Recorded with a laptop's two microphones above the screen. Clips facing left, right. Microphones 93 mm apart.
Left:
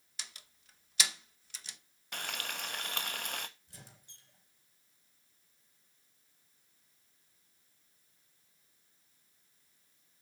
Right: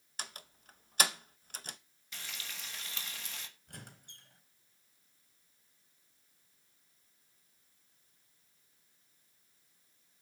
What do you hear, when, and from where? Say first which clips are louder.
0.2 s a door slam: right 6 dB; 50° right (ahead or behind), 0.7 m
2.1 s frying: left 7 dB; 65° left (ahead or behind), 1.0 m
3.7 s a squeak: right 5 dB; 65° right (ahead or behind), 2.5 m